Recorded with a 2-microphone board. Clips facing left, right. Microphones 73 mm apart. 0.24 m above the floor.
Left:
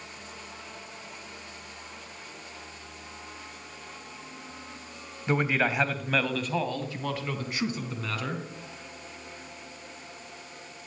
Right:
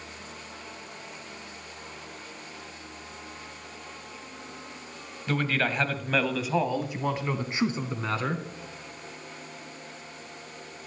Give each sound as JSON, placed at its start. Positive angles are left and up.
{"t": 5.3, "sound": "a man speaking", "side_deg": 20, "distance_m": 1.3}